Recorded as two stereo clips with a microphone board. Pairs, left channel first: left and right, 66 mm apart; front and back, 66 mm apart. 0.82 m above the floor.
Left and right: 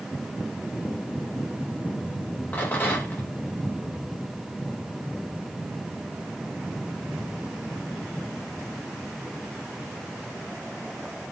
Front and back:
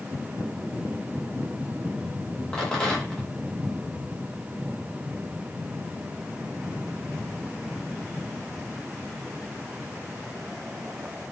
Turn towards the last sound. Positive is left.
turn(degrees=65)